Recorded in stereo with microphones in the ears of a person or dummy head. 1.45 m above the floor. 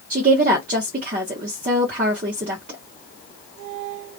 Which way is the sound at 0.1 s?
45° right (ahead or behind).